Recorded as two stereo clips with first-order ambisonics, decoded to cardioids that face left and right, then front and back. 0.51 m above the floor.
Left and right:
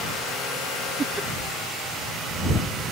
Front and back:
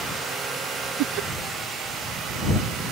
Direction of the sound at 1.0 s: 165° right.